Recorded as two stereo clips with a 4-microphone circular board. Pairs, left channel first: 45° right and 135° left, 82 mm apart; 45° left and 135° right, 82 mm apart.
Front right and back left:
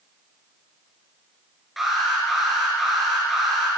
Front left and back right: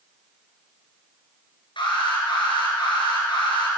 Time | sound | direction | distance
1.8 | an alarm | 50° left | 4 m